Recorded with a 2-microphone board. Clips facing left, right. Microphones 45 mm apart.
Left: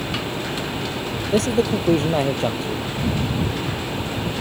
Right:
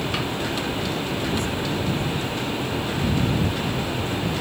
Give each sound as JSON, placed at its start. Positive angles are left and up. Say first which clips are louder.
{"t": 1.3, "sound": "a man speaking", "louder": "left 6 dB", "side_deg": 70}